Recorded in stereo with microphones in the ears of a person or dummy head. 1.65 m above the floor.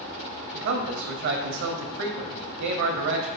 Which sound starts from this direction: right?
A man speaking, at 0.5 s.